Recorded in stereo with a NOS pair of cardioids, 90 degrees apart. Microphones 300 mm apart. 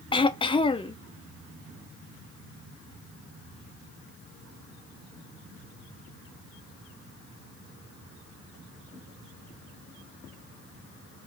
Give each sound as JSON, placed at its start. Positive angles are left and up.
{"t": 0.1, "sound": "throat clearing", "azimuth_deg": 15, "distance_m": 0.7}